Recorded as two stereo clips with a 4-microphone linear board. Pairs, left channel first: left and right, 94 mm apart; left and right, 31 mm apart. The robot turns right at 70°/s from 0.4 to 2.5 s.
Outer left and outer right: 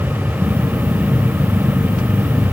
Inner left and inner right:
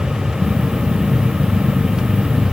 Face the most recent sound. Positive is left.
No sound to turn to.